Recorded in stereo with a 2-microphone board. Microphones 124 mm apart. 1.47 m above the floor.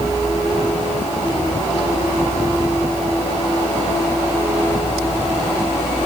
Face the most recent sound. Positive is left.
No sound to turn to.